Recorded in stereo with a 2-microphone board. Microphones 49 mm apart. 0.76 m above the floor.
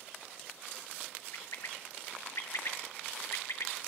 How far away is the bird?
About 0.5 m.